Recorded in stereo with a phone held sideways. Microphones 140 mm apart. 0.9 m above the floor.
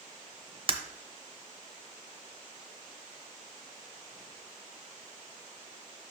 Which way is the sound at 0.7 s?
40° right (ahead or behind).